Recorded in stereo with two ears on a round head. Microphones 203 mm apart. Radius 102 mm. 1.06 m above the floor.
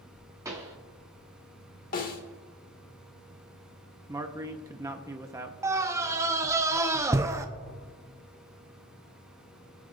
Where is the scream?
15° right (ahead or behind), 0.5 m.